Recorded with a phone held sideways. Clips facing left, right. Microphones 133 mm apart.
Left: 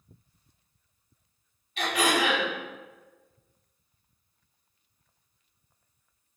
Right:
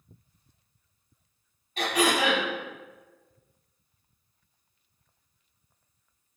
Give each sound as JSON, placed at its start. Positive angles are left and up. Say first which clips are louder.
{"t": 1.8, "sound": "throat clearing", "louder": "right 1 dB", "side_deg": -40, "distance_m": 1.1}